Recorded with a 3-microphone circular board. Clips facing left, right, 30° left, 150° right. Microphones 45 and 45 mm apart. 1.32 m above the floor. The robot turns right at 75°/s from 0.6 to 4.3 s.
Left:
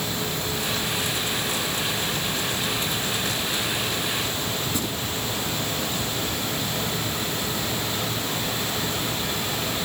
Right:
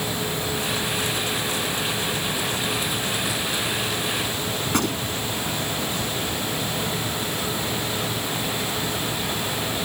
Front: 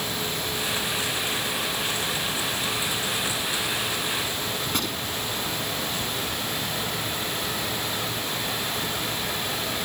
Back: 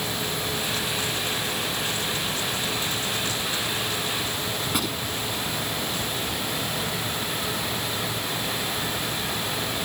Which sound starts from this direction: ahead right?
A gunshot, at 4.7 s.